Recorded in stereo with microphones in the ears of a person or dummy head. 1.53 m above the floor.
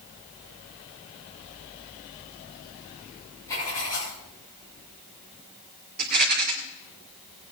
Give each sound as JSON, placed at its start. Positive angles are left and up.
{"t": 3.5, "sound": "writing", "side_deg": 15, "distance_m": 6.0}
{"t": 6.0, "sound": "a rattle", "side_deg": -45, "distance_m": 2.5}